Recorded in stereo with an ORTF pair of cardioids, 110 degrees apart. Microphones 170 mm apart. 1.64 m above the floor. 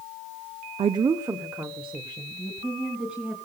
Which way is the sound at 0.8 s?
35° right.